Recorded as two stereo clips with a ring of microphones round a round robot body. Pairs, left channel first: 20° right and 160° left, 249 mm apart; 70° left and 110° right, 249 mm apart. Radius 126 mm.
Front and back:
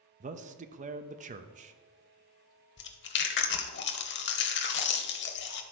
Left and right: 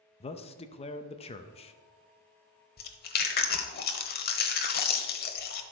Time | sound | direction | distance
0.2 | a man speaking | 120° left | 0.7 m
2.8 | chewing | 20° left | 0.9 m